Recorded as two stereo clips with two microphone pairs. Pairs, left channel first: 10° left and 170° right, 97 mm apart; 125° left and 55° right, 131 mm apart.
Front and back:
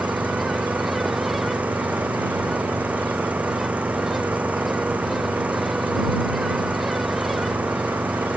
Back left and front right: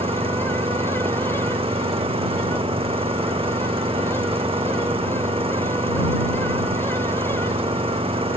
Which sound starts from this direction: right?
An engine running, at 0.0 s.